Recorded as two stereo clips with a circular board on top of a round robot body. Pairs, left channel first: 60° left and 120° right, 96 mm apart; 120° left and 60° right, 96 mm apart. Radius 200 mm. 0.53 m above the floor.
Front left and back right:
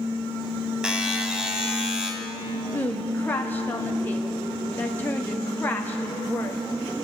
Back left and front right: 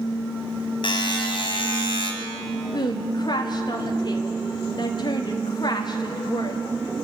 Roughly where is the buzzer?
Behind left.